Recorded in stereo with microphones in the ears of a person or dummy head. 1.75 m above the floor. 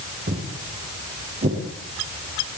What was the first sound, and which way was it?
Footsteps, 50° right (ahead or behind).